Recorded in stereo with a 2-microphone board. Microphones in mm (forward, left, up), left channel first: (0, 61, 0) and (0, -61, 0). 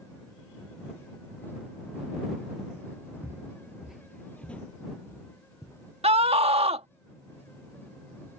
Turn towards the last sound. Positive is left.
turn(degrees=-60)  # may be behind; listen again after turning